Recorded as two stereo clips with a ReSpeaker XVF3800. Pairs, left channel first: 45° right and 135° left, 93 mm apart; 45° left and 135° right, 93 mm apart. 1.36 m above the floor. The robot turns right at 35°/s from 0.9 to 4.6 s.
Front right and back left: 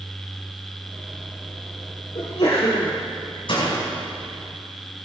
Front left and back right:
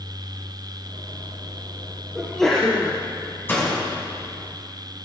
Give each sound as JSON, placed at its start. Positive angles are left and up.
{"t": 2.1, "sound": "a sneeze", "azimuth_deg": -50, "distance_m": 3.0}
{"t": 3.5, "sound": "a door slam", "azimuth_deg": -20, "distance_m": 6.5}